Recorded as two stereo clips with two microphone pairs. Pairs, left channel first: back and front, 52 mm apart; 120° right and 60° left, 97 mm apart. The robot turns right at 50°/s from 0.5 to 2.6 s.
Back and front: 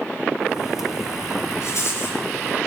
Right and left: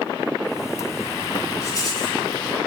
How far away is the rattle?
About 6 m.